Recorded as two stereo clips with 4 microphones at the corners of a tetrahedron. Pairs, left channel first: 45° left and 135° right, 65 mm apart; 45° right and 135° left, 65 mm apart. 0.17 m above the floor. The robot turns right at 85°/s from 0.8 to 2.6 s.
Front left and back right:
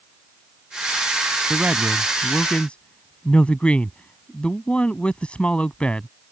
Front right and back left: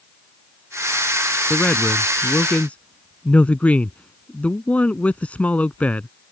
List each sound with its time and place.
1.5 s a man speaking: 100° right; by 6.1 s 5° right